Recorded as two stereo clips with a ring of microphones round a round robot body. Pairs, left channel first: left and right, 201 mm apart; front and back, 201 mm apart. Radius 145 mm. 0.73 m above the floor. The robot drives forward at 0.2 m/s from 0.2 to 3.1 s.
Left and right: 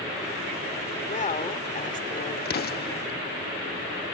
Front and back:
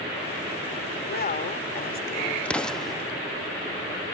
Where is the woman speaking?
40° left; by 3.1 s 45° left.